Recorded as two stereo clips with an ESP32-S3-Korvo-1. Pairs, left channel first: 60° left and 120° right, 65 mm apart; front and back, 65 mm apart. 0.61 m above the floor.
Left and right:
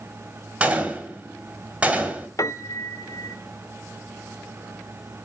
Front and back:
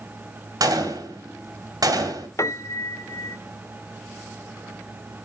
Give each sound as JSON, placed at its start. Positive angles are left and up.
{"t": 0.6, "sound": "a gunshot", "azimuth_deg": 170, "distance_m": 2.0}
{"t": 2.4, "sound": "a piano", "azimuth_deg": 30, "distance_m": 0.7}